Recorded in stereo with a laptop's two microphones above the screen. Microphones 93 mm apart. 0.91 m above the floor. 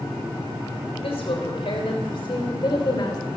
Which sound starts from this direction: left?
A woman speaking, at 1.0 s.